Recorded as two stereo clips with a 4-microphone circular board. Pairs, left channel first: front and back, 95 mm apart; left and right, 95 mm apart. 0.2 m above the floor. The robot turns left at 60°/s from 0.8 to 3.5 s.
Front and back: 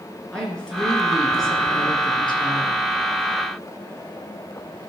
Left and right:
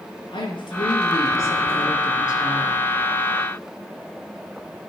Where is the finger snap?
No finger snap in this recording.